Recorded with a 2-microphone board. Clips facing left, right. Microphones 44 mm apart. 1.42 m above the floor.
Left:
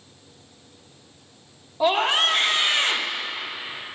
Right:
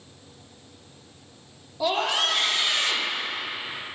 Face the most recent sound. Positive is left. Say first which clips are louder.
# left 4 dB
turn(degrees=40)  # may be behind; listen again after turning